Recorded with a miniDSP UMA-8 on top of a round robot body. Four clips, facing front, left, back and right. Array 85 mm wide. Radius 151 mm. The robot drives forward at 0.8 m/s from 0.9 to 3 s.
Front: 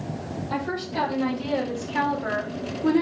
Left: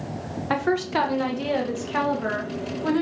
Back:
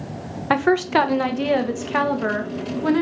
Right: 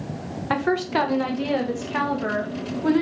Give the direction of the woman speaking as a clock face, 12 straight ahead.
6 o'clock.